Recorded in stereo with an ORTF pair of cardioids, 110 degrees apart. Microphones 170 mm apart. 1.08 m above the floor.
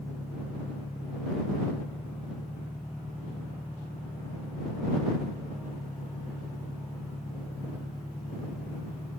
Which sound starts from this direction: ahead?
An engine running, at 0.0 s.